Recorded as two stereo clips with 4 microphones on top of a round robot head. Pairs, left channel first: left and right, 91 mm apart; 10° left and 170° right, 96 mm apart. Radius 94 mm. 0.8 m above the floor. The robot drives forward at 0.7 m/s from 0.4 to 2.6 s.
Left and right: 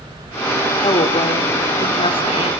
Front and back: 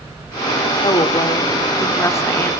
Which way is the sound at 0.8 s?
55° left.